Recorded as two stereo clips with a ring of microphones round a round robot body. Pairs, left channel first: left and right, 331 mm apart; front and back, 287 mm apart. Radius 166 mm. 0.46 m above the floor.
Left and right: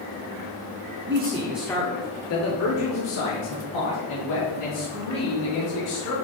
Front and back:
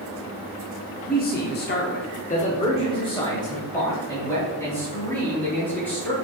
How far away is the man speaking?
About 1.1 m.